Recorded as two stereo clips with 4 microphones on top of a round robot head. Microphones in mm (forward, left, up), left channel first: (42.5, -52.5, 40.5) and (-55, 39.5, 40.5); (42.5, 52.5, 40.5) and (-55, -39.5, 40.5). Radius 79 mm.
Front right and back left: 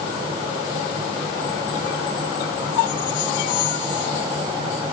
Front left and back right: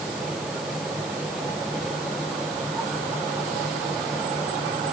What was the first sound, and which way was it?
Only background noise.